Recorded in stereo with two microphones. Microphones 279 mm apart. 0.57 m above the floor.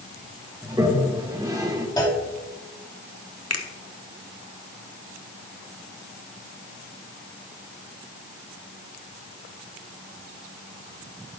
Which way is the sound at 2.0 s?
15° left (ahead or behind).